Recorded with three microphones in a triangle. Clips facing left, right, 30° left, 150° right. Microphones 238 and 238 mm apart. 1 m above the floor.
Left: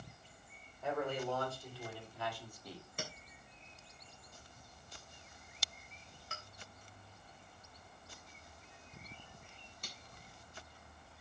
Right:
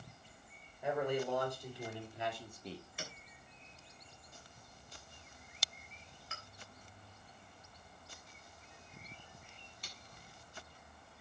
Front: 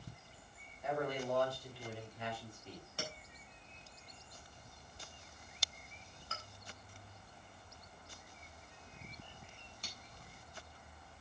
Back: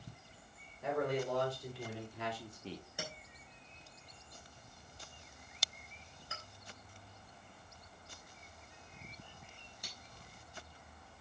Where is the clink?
135° left, 3.5 m.